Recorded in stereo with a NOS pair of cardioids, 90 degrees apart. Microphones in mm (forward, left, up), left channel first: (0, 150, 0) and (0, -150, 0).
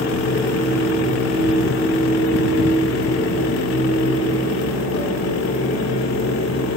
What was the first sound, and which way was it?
A fan, 65° left.